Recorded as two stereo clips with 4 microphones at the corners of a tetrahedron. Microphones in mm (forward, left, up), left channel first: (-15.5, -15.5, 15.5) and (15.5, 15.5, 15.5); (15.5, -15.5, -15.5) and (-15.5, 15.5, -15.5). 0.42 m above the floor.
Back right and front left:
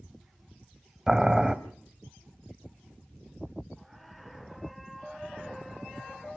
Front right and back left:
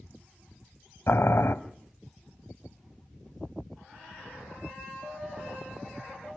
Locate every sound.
1.1 s boiling: 30° right, 1.4 m